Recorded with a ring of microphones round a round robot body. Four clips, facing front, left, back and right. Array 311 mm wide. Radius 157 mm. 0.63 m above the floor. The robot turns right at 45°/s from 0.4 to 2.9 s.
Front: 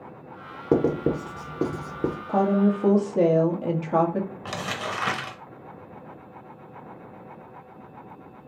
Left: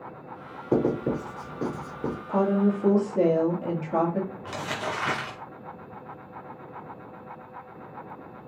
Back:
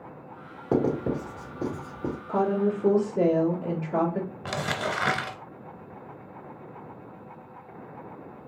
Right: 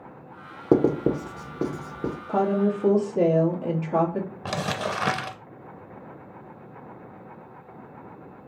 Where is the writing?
70° right, 1.1 m; by 2.2 s 5° right, 1.1 m.